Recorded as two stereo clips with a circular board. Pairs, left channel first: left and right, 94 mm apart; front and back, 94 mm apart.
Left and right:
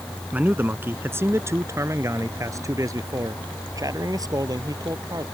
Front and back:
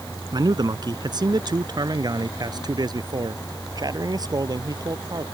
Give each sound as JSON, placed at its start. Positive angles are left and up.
{"t": 0.3, "sound": "a man speaking", "azimuth_deg": -160}